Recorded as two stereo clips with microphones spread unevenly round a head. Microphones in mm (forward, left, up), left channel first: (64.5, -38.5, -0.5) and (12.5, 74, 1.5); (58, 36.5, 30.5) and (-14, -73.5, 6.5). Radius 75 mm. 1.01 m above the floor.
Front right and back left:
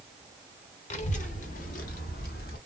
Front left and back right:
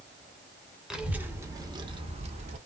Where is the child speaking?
35° right, 1.1 m; by 2.6 s 85° right, 1.3 m.